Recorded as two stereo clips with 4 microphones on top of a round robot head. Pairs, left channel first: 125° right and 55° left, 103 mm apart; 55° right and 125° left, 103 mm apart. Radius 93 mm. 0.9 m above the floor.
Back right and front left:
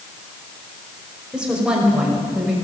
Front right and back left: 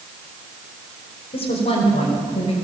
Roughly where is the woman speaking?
Ahead right.